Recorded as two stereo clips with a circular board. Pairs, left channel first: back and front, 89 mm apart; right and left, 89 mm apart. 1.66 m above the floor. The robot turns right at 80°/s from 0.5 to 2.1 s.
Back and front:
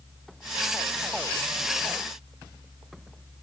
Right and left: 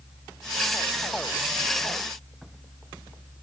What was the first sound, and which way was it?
Only background noise.